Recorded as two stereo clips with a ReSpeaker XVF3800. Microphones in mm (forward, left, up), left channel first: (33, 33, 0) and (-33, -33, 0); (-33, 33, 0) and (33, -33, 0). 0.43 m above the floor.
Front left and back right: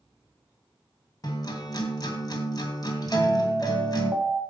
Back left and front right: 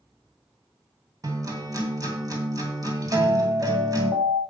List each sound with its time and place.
1.2 s a guitar: straight ahead, 2.5 m
3.1 s an alarm: 55° right, 4 m